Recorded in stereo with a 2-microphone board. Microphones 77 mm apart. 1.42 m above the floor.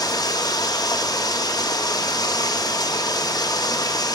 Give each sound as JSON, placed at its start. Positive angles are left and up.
{"t": 0.0, "sound": "running water", "side_deg": 55, "distance_m": 2.0}